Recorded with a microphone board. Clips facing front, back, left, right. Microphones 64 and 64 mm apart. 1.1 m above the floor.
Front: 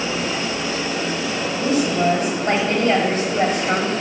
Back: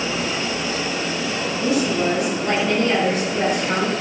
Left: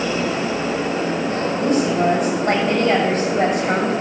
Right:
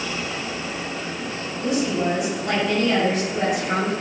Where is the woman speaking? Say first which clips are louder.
Front 1 dB, left 4 dB; 50° left, 6 m.